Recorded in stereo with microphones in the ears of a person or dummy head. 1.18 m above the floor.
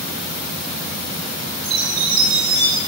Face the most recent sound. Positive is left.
turn(degrees=-65)  # may be behind; listen again after turning